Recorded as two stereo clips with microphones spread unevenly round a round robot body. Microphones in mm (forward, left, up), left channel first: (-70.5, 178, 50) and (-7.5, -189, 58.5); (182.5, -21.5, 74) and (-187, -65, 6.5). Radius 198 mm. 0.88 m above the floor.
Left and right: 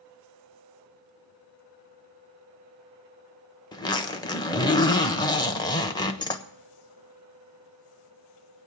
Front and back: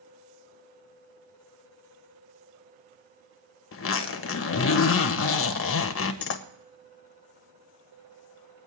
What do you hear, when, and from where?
3.7 s a zipper: 35° left, 1.0 m